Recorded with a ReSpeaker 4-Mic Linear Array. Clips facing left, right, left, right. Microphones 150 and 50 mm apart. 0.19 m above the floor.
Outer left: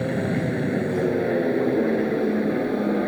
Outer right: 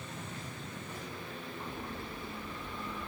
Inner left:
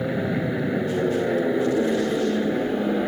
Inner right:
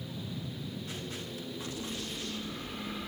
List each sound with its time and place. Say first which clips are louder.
0.0 s an aircraft: outer left 21 dB, inner left 17 dB; 65° left (ahead or behind)